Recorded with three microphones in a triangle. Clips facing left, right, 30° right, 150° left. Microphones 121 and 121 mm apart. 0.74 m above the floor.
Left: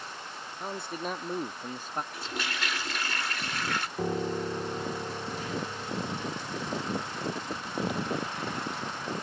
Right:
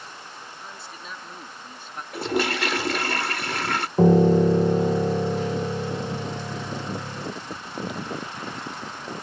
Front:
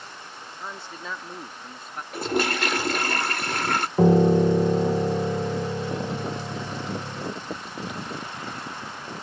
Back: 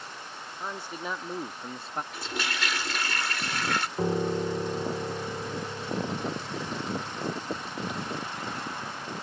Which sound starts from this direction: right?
A piano, at 4.0 s.